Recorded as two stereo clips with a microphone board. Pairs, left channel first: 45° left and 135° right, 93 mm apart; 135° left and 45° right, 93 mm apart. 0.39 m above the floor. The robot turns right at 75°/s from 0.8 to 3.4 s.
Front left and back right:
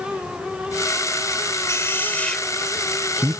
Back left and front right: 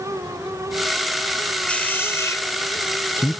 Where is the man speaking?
70° left; by 3.4 s 165° right.